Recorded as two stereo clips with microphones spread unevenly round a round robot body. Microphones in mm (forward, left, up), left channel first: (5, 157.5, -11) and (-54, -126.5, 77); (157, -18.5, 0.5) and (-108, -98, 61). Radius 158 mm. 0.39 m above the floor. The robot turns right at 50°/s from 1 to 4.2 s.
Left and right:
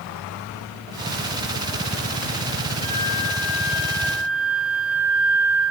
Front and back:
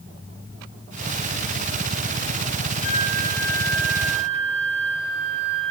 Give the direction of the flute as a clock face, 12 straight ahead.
9 o'clock.